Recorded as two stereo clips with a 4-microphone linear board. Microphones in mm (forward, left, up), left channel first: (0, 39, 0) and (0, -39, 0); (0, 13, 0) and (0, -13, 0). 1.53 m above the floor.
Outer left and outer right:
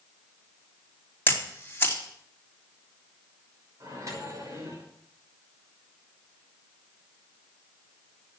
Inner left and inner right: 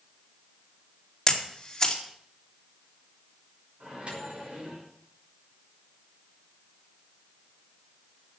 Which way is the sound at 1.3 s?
30° left (ahead or behind).